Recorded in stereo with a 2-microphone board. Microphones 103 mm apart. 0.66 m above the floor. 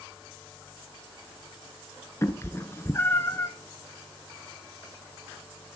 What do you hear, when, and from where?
2.2 s a cat meowing: 25° left (ahead or behind), 0.8 m